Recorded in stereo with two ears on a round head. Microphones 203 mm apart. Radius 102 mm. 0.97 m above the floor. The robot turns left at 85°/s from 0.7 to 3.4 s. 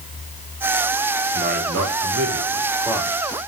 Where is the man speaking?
35° right, 2 m; by 3.1 s 175° left, 2 m.